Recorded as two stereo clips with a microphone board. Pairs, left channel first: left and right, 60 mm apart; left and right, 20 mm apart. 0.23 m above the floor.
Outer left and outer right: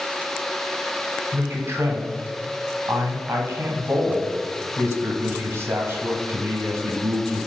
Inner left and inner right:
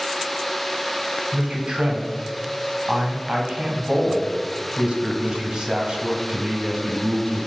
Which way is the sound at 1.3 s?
45° right (ahead or behind).